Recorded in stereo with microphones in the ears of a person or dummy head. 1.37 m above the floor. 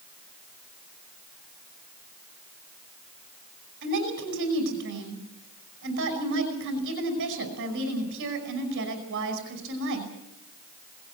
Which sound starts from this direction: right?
A woman speaking, at 3.8 s.